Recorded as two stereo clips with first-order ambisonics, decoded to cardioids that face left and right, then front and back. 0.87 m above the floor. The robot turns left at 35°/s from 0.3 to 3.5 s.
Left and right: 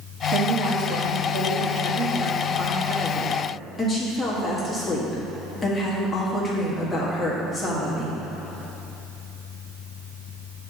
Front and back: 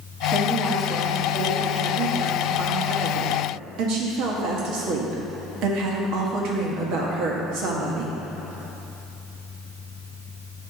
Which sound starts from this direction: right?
A woman speaking, at 0.3 s.